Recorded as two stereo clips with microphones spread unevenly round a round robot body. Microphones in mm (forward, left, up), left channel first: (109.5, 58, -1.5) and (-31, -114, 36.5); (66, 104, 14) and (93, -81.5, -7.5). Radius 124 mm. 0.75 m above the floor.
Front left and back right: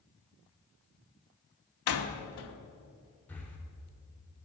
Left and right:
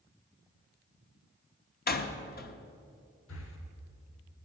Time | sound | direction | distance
1.9 | a door slam | 60° left | 1.2 m
3.3 | breathing | 130° left | 1.4 m